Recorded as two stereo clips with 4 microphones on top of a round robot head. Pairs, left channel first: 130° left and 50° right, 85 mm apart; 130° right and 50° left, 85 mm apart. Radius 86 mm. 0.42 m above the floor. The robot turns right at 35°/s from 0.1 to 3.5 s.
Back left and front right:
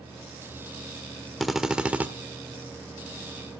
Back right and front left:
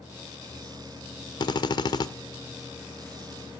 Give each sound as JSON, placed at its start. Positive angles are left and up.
{"t": 1.4, "sound": "a drill", "azimuth_deg": -140, "distance_m": 1.1}